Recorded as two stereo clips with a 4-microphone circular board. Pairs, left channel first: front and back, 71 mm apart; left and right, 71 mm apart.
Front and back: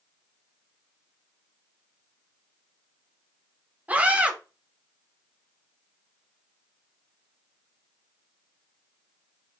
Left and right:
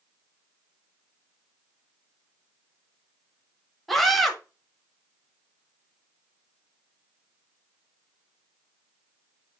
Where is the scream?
175° left, 0.9 m.